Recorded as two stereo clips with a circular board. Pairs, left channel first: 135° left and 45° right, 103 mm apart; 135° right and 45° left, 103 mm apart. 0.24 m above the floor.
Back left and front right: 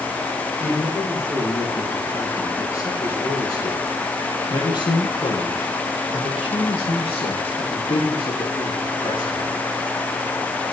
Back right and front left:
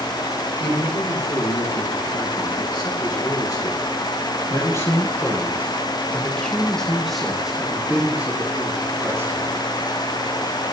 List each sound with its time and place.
0.6 s a man speaking: 160° right, 8.5 m; by 9.6 s 105° left, 5.5 m